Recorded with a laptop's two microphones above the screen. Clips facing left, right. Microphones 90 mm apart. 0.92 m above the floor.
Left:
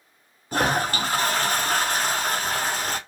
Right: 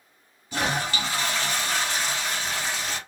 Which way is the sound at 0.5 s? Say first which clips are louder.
Left 4 dB; 45° left (ahead or behind).